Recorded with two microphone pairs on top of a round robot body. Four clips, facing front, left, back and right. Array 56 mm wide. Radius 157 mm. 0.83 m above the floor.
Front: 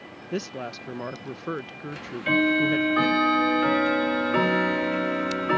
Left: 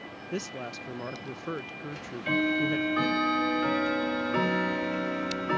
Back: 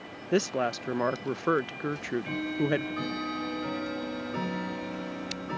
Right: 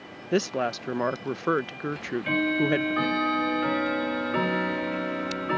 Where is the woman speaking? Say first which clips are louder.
Right 11 dB, back 5 dB; 110° right.